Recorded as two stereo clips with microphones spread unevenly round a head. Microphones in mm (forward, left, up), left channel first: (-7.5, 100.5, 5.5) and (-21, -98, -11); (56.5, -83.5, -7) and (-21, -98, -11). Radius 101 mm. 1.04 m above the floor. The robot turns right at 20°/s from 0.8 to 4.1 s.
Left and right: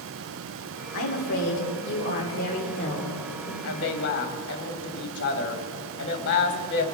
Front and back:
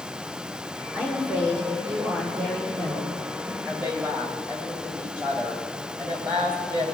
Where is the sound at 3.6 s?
115° left, 2.5 m; by 6.8 s 125° left, 2.5 m.